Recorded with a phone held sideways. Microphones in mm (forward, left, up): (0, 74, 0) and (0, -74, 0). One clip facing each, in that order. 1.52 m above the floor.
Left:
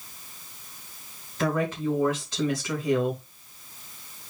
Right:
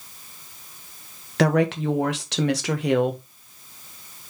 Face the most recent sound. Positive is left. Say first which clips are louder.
# right 6 dB
turn(degrees=-65)  # may be behind; listen again after turning